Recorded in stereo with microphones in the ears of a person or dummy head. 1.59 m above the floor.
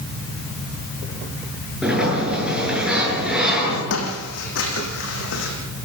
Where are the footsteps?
70° left (ahead or behind), 4.5 m.